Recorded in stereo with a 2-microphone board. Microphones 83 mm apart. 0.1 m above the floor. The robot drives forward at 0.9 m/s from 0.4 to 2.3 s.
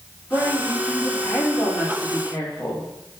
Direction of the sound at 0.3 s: 5° left (ahead or behind).